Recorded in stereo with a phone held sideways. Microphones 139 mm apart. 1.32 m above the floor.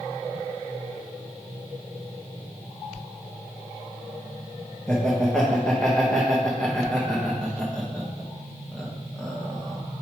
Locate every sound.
4.9 s laughter: 5° left (ahead or behind), 1.0 m